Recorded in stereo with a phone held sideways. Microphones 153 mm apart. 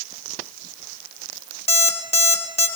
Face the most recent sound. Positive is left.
turn(degrees=40)  # may be behind; listen again after turning